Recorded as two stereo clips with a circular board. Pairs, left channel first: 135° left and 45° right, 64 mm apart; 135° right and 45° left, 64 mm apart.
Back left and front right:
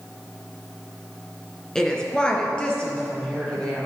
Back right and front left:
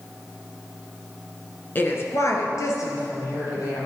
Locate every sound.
1.8 s a woman speaking: 155° right, 1.2 m